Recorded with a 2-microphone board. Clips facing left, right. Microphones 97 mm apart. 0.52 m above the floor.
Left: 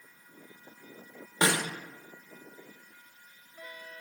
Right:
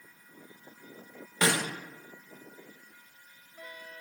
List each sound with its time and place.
1.4 s a snare drum: 25° left (ahead or behind), 0.5 m